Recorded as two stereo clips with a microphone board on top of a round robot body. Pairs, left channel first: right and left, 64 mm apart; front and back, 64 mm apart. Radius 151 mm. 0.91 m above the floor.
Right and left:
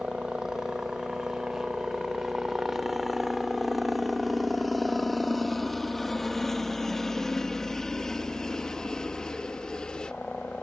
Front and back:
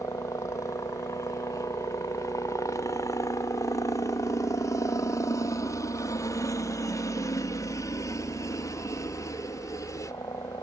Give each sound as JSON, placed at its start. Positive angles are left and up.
{"t": 0.0, "sound": "a helicopter", "azimuth_deg": 15}